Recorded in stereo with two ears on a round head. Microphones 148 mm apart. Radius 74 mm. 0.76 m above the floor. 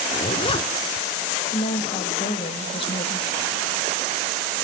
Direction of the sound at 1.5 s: 35° left (ahead or behind).